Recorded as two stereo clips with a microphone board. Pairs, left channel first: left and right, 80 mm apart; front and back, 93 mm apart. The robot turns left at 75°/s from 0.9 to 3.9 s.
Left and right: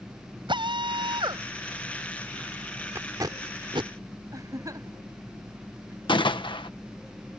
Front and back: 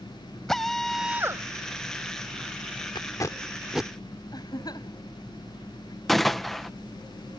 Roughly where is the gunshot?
Left.